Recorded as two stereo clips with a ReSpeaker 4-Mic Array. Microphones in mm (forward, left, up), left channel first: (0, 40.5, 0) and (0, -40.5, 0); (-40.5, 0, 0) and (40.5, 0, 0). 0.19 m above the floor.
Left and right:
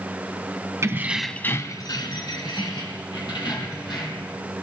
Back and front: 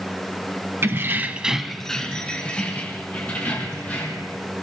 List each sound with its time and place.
0.8 s keys jangling: 50° right, 1.0 m; by 4.3 s 110° left, 4.5 m